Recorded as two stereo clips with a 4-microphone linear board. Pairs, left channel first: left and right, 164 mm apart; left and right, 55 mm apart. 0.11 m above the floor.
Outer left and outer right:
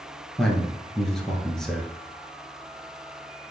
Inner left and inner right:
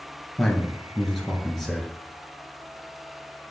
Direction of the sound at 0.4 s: 5° left (ahead or behind).